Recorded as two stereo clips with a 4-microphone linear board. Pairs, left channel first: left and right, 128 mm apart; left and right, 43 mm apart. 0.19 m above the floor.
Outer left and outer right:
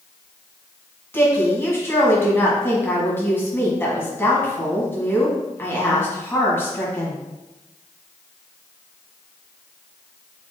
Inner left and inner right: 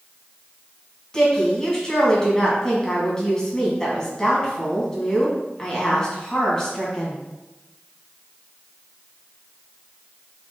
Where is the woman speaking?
15° left (ahead or behind), 1.4 m.